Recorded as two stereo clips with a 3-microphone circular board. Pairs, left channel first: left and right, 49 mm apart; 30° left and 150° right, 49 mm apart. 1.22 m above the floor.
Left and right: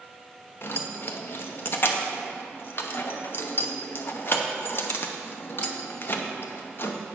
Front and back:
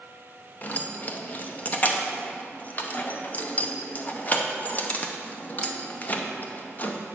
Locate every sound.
0.6 s keys jangling: 70° left, 0.7 m